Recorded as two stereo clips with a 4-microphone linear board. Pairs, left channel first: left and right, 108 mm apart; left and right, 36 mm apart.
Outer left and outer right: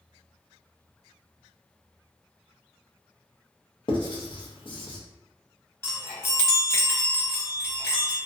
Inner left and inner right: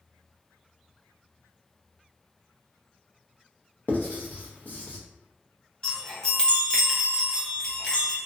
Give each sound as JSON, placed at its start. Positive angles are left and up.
{"t": 3.9, "sound": "writing", "side_deg": 50, "distance_m": 0.5}
{"t": 5.8, "sound": "a chime", "side_deg": 25, "distance_m": 0.8}